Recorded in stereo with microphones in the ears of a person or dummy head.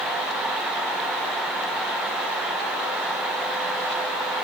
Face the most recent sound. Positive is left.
No sound to turn to.